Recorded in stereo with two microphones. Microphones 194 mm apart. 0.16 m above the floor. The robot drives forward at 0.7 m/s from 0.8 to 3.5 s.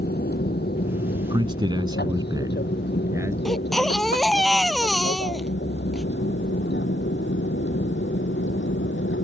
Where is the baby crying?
Centre (ahead or behind).